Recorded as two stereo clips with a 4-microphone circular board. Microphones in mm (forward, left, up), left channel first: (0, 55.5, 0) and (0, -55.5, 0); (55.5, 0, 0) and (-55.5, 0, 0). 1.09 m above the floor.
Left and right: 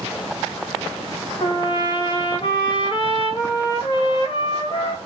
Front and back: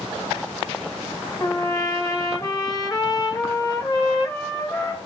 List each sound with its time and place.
1.4 s a trumpet: 55° left, 0.9 m